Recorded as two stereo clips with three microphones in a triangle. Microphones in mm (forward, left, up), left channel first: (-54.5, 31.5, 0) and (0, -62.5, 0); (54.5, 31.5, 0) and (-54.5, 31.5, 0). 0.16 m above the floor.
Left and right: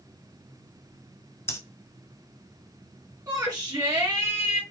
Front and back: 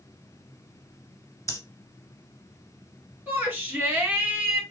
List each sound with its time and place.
1.5 s breathing: 60° left, 0.8 m
3.3 s a shout: 110° right, 2.0 m